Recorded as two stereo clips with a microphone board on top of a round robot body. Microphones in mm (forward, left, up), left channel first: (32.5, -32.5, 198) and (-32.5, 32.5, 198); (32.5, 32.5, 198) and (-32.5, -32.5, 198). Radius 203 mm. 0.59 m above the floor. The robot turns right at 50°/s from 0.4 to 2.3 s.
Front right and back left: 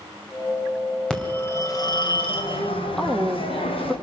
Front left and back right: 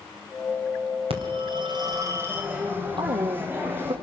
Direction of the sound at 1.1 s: 125° right.